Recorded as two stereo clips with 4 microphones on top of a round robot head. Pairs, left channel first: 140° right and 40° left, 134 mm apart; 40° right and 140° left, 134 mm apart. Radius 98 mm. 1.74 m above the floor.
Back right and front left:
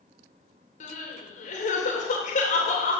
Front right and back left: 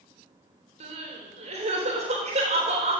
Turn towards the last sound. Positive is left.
turn(degrees=-175)